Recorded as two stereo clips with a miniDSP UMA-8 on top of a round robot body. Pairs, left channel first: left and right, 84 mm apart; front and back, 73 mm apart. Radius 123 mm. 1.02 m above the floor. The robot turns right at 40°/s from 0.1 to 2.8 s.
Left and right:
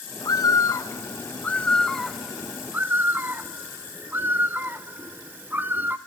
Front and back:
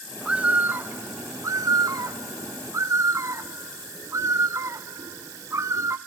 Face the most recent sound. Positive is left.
turn(degrees=-150)